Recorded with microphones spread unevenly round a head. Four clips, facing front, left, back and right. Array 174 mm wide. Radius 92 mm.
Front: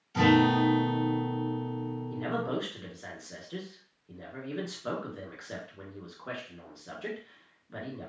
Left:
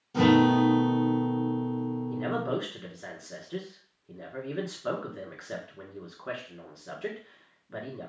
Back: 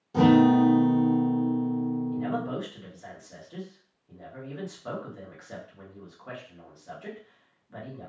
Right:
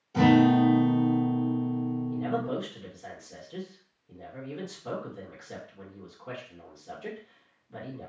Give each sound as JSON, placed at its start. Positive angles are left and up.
{"t": 0.1, "sound": "a guitar", "azimuth_deg": 165, "distance_m": 1.0}
{"t": 2.1, "sound": "a man speaking", "azimuth_deg": 65, "distance_m": 1.6}